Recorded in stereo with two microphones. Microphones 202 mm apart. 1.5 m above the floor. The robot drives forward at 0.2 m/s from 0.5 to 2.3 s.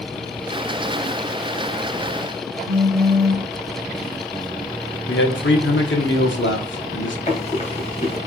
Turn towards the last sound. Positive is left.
turn(degrees=35)  # may be behind; listen again after turning